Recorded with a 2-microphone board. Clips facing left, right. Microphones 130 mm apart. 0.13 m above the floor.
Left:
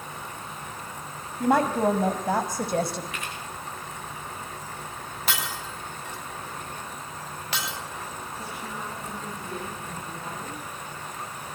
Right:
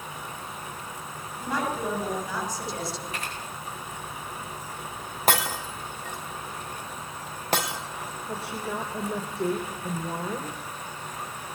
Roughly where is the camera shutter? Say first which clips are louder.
Right 1 dB; right.